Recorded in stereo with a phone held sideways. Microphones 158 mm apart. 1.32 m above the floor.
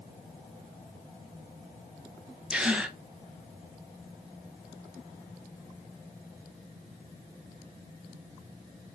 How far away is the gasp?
About 0.5 m.